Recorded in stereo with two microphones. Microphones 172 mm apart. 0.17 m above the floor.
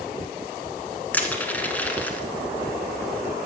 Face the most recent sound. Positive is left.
turn(degrees=10)  # may be behind; listen again after turning